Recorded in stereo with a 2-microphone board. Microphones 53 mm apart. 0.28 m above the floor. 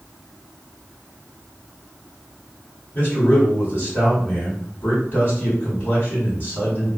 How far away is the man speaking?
About 1.7 m.